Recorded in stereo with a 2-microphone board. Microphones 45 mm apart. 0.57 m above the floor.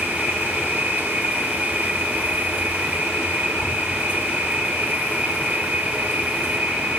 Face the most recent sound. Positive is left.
turn(degrees=-35)  # may be behind; listen again after turning